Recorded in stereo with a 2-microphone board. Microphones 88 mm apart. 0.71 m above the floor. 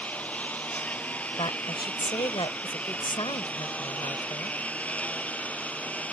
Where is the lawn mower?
15° left (ahead or behind).